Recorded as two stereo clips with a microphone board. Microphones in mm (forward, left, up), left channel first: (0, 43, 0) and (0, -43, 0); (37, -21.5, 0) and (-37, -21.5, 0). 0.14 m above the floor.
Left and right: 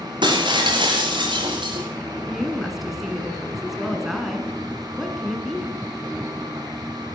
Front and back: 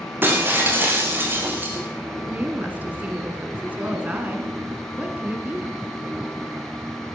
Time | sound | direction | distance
0.2 | breaking glass | 120° right | 4.5 m
2.3 | a woman speaking | 175° right | 1.7 m